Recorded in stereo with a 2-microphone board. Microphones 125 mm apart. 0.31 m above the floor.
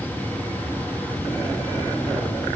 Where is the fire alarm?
I don't hear a fire alarm.